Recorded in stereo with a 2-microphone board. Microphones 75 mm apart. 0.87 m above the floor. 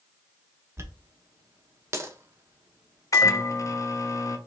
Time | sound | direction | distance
0.8 | a dropped coin | 35° right (ahead or behind) | 0.8 m
3.1 | a microwave | 40° left (ahead or behind) | 0.6 m